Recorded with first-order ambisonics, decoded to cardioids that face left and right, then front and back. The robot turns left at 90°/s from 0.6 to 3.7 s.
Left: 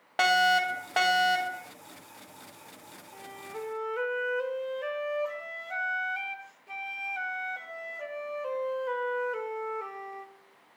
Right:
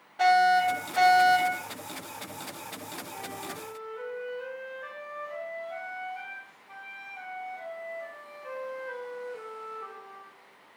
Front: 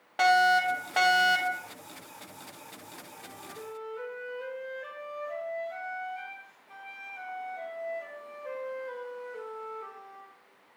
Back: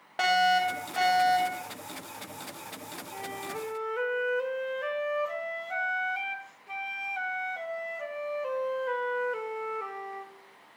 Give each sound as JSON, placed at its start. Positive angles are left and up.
{"t": 0.2, "sound": "a fire alarm", "azimuth_deg": 90, "distance_m": 1.7}
{"t": 3.1, "sound": "a flute", "azimuth_deg": -165, "distance_m": 1.6}